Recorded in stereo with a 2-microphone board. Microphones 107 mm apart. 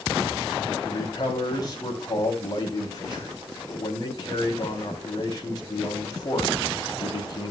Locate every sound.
0.8 s a man speaking: 40° left (ahead or behind), 3 m